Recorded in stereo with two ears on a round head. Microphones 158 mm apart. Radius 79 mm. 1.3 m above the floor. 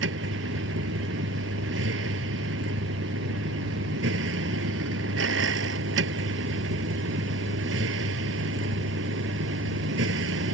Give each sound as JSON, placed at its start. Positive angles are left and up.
{"t": 0.0, "sound": "a vehicle", "side_deg": -70}